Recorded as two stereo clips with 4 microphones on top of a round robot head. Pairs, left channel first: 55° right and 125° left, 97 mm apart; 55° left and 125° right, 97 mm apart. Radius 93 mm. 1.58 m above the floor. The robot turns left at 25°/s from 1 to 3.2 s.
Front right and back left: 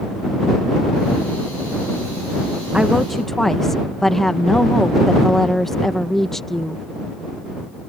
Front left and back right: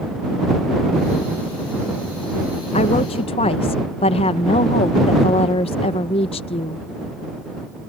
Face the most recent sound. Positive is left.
turn(degrees=30)